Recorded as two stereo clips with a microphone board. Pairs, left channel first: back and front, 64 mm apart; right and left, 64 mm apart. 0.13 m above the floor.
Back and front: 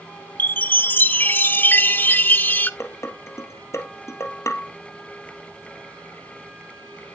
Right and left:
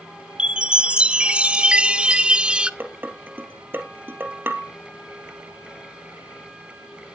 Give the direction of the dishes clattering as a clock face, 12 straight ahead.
7 o'clock.